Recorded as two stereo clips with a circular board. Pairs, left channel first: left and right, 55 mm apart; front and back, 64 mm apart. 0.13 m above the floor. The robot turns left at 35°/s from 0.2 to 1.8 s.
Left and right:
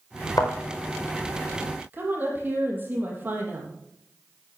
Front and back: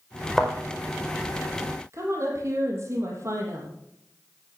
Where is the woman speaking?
140° right, 4 m.